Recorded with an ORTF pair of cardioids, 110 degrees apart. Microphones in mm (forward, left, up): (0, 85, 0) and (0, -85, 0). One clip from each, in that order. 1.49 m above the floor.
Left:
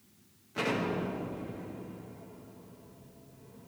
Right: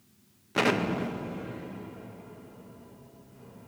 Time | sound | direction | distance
0.6 | an explosion | 55° right | 0.7 m